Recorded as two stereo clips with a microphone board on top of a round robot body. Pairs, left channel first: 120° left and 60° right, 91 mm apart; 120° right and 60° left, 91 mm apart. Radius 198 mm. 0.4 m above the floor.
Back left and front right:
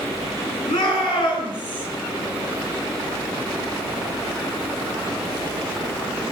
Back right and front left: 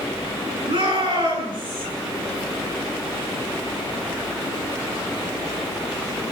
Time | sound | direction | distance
0.7 | a shout | 85° left | 9.5 m